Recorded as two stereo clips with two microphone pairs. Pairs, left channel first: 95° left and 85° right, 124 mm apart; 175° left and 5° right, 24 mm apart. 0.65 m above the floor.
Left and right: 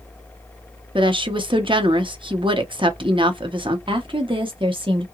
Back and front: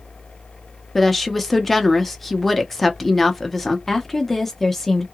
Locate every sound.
0.9 s a woman speaking: 105° right, 0.7 m
3.9 s a woman speaking: 110° right, 0.8 m